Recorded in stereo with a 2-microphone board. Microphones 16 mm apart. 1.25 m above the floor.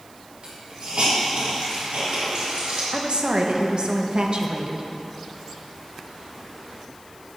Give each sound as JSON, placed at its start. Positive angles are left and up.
{"t": 0.4, "sound": "a hiss", "side_deg": -85, "distance_m": 4.0}
{"t": 2.9, "sound": "a woman speaking", "side_deg": -60, "distance_m": 1.2}